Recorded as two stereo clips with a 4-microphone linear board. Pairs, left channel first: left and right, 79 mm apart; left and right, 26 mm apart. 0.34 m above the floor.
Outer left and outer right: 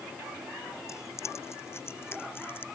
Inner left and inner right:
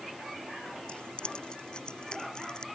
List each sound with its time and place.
0.9 s keys jangling: 40° left (ahead or behind); by 2.6 s 30° left (ahead or behind)